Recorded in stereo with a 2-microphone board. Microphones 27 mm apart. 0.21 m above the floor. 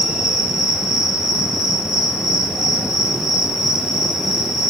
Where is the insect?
10° right (ahead or behind), 0.9 m.